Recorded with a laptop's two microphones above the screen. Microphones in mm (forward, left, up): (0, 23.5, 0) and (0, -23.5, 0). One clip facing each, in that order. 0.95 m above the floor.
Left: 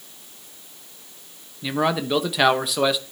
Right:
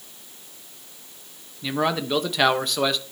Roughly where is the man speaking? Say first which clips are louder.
Left 1 dB; centre.